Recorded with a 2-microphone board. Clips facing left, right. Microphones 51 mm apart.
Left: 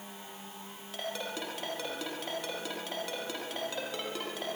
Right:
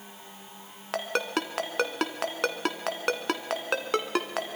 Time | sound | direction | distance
0.9 | a ringtone | 70° right (ahead or behind) | 1.8 m